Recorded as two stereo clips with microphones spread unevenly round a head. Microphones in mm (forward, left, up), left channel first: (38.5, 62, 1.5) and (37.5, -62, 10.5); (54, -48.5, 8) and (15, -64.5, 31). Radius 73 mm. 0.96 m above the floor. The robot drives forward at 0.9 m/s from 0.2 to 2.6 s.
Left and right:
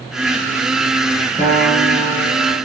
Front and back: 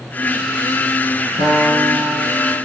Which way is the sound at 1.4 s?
175° right.